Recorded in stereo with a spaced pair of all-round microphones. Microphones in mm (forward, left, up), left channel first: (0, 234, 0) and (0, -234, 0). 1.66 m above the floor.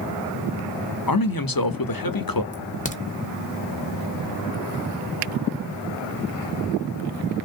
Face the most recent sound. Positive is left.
turn(degrees=15)  # may be behind; listen again after turning